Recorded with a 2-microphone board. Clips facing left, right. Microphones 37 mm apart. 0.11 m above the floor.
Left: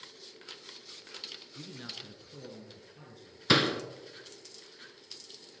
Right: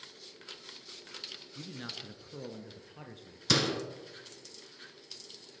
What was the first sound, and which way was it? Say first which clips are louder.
A man speaking: right 2 dB; centre (ahead or behind).